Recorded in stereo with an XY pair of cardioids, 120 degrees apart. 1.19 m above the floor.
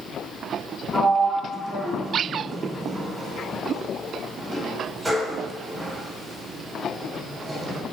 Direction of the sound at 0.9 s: 20° right.